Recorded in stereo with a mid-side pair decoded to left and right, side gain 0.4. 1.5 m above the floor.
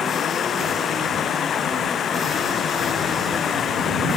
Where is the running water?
60° left.